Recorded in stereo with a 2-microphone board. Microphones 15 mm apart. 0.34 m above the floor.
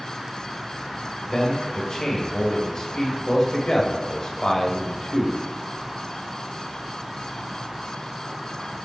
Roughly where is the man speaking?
Left.